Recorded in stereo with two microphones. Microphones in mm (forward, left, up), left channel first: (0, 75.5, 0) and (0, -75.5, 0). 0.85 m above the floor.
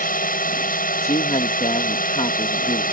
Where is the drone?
70° left (ahead or behind).